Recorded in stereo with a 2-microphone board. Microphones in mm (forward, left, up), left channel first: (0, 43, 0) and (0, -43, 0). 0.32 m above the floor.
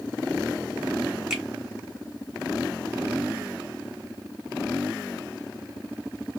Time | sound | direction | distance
1.3 | a finger snap | 10° right (ahead or behind) | 1.0 m